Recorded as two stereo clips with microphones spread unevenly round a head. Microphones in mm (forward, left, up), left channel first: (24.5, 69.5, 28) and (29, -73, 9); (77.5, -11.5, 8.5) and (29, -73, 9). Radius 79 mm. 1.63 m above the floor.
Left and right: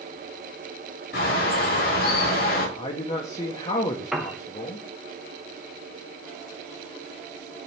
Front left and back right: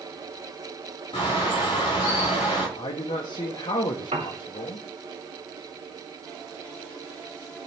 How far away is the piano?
About 0.8 m.